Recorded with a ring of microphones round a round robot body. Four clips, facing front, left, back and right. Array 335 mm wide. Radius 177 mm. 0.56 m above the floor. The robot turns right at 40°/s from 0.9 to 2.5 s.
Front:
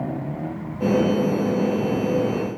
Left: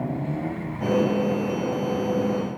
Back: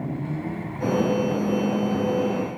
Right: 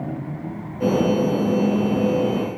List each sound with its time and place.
Only background noise.